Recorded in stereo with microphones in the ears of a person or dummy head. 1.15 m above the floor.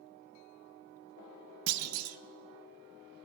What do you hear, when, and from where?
1.7 s a clunk: 85° right, 0.6 m